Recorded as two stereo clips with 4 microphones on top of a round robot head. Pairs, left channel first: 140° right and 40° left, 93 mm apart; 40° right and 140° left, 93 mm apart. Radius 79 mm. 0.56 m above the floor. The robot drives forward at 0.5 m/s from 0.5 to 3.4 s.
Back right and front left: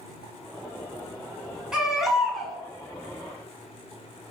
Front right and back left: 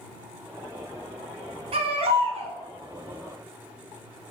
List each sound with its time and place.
1.7 s a baby crying: 120° left, 2.5 m; by 2.6 s 130° left, 2.5 m